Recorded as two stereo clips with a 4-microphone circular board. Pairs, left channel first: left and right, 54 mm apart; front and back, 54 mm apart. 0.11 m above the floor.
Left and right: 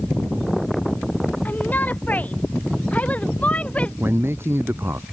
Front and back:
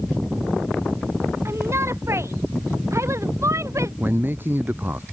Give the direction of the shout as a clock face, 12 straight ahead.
7 o'clock.